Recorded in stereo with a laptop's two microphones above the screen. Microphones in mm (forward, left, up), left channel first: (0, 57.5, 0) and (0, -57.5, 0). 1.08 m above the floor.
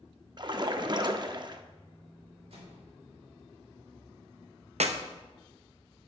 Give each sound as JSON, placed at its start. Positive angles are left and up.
{"t": 0.4, "sound": "a splash", "side_deg": -45, "distance_m": 0.7}
{"t": 2.5, "sound": "a microwave", "side_deg": -75, "distance_m": 3.5}
{"t": 4.8, "sound": "a clap", "side_deg": -75, "distance_m": 0.8}